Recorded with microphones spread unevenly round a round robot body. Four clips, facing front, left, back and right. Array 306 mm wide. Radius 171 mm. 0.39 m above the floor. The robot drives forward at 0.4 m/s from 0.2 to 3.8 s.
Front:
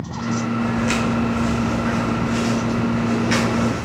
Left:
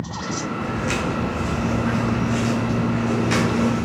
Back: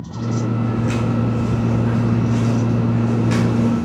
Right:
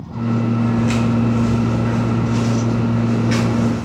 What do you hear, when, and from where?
0.6 s footsteps: 20° left, 1.7 m; by 3.9 s 125° left, 2 m